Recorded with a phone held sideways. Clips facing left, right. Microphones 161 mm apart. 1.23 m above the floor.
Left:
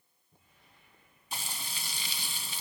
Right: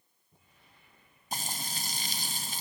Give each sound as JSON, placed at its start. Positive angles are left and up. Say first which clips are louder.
{"t": 1.3, "sound": "frying", "louder": "right 4 dB", "side_deg": -45, "distance_m": 1.5}